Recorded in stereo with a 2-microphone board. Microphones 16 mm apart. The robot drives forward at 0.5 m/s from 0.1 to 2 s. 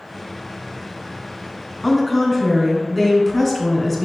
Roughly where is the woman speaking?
Centre.